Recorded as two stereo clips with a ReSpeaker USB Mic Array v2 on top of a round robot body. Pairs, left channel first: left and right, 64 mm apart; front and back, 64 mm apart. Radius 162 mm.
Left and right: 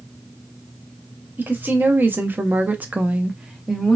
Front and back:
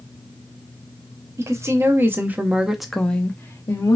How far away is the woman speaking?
About 1.1 m.